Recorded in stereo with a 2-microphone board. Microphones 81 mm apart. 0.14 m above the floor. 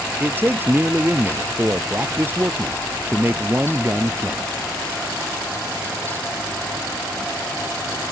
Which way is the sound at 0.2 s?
25° right (ahead or behind).